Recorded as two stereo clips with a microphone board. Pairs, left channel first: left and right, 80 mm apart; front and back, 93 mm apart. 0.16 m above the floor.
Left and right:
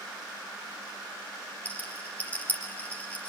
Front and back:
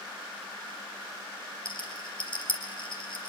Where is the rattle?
20° left, 4 m.